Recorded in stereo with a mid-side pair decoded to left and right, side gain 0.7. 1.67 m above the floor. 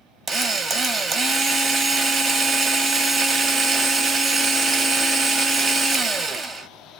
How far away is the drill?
About 0.9 m.